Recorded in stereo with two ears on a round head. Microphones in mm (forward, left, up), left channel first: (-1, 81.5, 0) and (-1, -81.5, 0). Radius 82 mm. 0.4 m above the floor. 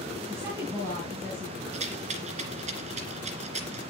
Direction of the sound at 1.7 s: 40° right (ahead or behind).